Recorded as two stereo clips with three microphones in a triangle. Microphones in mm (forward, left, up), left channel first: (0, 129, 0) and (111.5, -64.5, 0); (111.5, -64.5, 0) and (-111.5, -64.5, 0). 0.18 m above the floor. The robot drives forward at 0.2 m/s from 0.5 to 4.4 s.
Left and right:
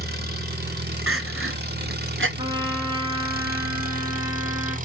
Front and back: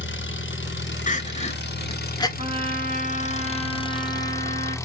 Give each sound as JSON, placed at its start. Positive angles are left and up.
{"t": 0.0, "sound": "an engine running", "azimuth_deg": -20, "distance_m": 1.1}
{"t": 1.1, "sound": "crying", "azimuth_deg": -55, "distance_m": 0.8}
{"t": 2.4, "sound": "a trumpet", "azimuth_deg": -125, "distance_m": 1.4}